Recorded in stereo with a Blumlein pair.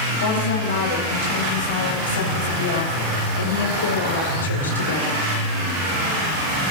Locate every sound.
0.2 s a woman speaking: 55° left, 8 m; by 5.2 s 70° left, 4 m